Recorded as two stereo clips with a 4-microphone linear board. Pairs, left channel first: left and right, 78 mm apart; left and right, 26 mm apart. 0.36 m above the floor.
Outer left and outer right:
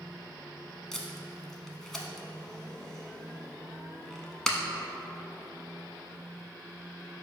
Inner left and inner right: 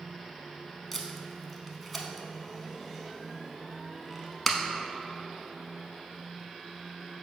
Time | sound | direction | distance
0.9 | tape being pulled | 5° left (ahead or behind) | 0.6 m